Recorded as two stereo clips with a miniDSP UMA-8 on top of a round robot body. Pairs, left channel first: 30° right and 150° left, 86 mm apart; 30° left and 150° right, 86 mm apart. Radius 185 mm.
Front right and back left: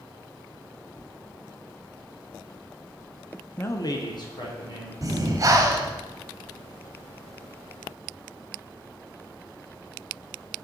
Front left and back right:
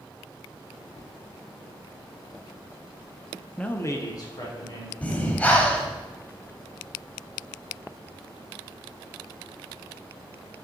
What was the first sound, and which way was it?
A man speaking, 35° right.